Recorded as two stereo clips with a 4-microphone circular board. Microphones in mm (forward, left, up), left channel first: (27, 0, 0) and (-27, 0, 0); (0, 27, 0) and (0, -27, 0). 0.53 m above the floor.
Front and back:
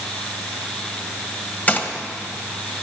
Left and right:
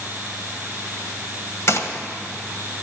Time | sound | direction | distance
1.7 | a gunshot | 60° left | 1.6 m